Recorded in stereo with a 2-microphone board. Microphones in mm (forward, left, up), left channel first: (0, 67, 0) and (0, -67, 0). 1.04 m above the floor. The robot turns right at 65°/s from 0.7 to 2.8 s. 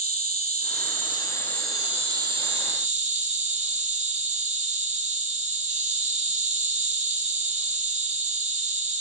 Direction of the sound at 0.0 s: 115° left.